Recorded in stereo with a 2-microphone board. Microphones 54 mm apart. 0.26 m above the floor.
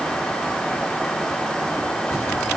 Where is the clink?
I don't hear a clink.